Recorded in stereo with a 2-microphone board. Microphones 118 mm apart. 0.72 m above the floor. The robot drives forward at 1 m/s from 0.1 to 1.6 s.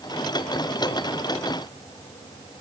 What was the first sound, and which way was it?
Only background noise.